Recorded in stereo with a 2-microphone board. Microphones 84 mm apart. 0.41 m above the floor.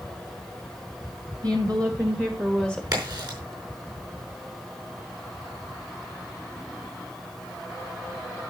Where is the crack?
55° right (ahead or behind), 5 m.